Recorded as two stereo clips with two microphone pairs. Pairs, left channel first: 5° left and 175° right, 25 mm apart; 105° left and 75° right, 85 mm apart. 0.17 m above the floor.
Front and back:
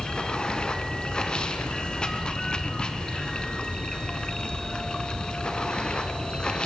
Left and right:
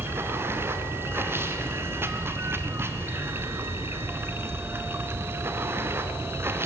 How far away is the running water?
About 2.0 m.